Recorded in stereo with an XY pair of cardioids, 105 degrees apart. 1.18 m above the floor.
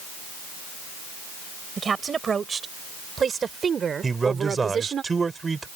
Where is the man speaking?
25° right.